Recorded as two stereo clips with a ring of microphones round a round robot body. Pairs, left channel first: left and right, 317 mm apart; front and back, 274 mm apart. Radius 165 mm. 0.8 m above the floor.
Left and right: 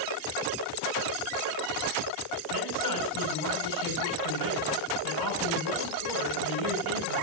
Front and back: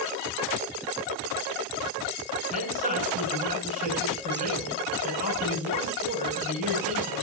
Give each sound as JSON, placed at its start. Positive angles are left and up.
{"t": 2.5, "sound": "a man speaking", "azimuth_deg": 115, "distance_m": 8.0}